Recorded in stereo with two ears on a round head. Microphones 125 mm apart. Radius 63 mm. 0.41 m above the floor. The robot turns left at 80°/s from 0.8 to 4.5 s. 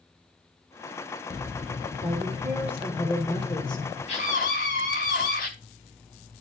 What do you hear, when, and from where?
2.0 s a woman speaking: 110° right, 1.6 m; by 4.0 s 95° left, 1.6 m
4.1 s a scream: 125° left, 3 m; by 5.5 s 90° left, 3 m